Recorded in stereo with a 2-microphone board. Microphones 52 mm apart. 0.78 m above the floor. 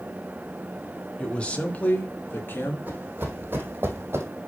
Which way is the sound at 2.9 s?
35° right (ahead or behind).